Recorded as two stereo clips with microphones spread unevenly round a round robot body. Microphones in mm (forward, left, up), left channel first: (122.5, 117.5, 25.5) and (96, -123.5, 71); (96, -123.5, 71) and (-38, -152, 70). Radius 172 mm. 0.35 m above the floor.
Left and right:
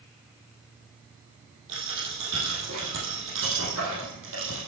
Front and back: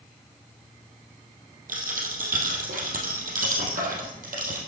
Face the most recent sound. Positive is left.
turn(degrees=-150)